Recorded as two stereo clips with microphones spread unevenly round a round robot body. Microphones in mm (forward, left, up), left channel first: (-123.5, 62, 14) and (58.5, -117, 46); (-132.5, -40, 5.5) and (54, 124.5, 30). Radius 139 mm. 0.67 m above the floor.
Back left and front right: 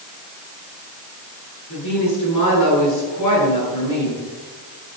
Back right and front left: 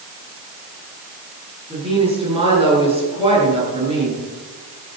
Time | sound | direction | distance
1.7 | a woman speaking | 110° left | 8.5 m